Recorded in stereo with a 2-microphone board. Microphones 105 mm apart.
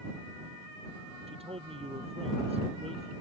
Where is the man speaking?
65° right (ahead or behind).